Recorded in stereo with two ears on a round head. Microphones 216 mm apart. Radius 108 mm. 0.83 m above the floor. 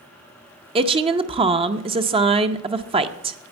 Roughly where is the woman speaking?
Right.